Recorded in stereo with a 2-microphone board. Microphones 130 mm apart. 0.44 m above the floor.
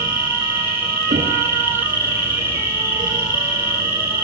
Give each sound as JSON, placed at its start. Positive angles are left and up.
{"t": 0.0, "sound": "an insect", "side_deg": -20, "distance_m": 6.5}
{"t": 1.1, "sound": "knocking", "side_deg": -80, "distance_m": 8.5}